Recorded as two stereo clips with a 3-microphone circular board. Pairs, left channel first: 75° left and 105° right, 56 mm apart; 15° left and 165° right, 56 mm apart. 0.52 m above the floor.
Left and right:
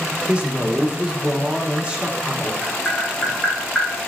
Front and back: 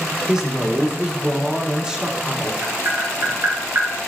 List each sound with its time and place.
0.3 s a man speaking: 125° right, 0.7 m
2.6 s tapping: 170° left, 1.6 m